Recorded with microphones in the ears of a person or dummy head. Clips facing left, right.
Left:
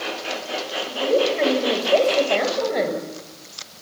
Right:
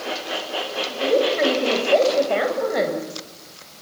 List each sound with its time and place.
0.9 s a woman speaking: centre (ahead or behind), 7 m